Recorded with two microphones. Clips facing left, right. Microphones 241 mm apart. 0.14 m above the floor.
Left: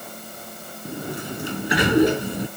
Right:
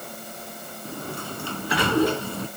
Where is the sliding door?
20° left (ahead or behind).